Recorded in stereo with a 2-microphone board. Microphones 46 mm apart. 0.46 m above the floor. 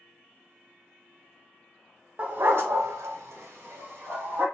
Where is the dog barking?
40° right (ahead or behind), 0.6 m; by 4.5 s 50° right (ahead or behind), 1.3 m.